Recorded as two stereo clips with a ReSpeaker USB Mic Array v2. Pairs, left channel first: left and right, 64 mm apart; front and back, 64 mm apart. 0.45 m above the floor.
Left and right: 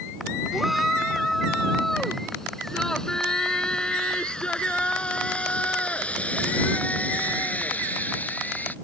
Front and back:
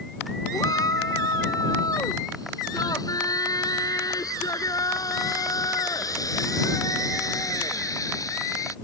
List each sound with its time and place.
0.5 s a shout: 5° right; by 8.7 s 30° left